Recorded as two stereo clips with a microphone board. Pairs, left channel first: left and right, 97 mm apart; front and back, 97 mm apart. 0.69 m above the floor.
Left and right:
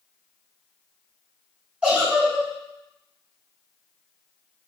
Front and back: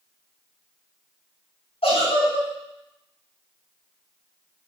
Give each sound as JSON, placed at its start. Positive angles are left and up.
{"t": 1.8, "sound": "a giggle", "azimuth_deg": -10, "distance_m": 4.5}